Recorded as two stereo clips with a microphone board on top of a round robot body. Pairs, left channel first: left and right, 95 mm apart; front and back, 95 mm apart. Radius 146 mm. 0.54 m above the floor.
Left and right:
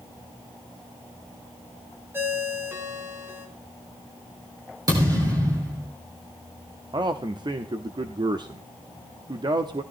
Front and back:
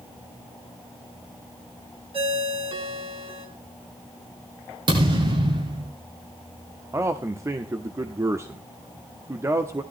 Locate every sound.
2.1 s a ringtone: 155° right, 2.5 m
4.9 s a thud: 140° right, 7.5 m
6.9 s a man speaking: 120° right, 1.2 m